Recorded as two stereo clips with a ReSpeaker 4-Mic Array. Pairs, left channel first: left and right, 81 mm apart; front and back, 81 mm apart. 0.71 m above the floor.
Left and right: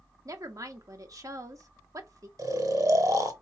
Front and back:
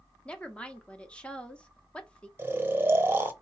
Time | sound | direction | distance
0.2 | a woman speaking | 70° right | 0.9 m
2.4 | snoring | 125° right | 0.7 m